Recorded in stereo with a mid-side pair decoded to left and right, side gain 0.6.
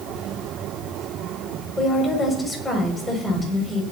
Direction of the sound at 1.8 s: 15° left.